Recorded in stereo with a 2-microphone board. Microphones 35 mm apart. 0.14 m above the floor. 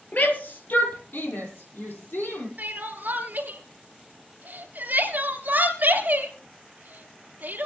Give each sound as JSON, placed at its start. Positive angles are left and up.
{"t": 0.1, "sound": "a shout", "side_deg": 50, "distance_m": 3.0}
{"t": 2.6, "sound": "crying", "side_deg": -60, "distance_m": 2.5}